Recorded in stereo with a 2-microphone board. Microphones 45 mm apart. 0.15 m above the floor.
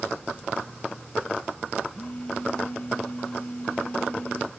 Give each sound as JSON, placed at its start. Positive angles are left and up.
{"t": 1.9, "sound": "a phone buzzing", "side_deg": 30}